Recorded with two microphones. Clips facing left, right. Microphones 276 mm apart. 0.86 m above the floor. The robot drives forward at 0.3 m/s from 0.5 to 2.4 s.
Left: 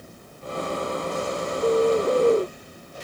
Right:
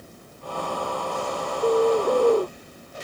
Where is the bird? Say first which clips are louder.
Even; centre (ahead or behind).